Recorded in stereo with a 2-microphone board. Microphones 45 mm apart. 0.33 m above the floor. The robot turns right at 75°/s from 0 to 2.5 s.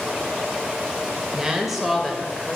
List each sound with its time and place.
1.3 s a woman speaking: 15° right (ahead or behind), 1.1 m; by 2.6 s 20° left (ahead or behind), 1.1 m